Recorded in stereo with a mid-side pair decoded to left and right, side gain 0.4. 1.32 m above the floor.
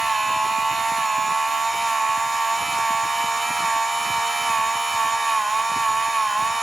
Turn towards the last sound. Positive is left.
turn(degrees=-25)